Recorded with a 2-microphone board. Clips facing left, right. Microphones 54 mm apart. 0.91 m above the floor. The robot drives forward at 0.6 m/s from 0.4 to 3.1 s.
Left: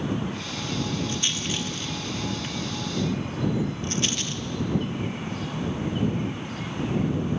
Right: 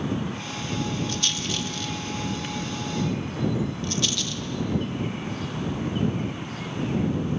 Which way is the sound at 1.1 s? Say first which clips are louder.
Even; 20° left (ahead or behind).